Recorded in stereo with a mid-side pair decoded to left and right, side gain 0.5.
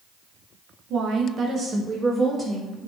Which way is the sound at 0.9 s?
65° right.